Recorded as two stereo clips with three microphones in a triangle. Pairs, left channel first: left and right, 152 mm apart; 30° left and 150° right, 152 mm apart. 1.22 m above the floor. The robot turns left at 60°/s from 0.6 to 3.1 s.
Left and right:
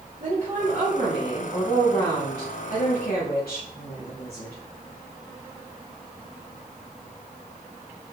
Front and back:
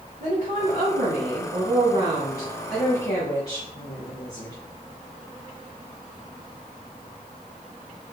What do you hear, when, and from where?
0.2 s a woman speaking: 125° right, 2.5 m; by 4.6 s 85° left, 2.5 m